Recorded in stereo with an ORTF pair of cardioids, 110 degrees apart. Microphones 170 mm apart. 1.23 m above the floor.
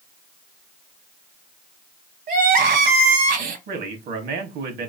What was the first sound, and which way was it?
Crying, 60° right.